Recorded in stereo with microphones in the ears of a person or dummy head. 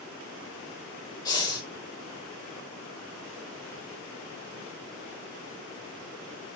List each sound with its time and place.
1.2 s breathing: 20° left (ahead or behind), 3 m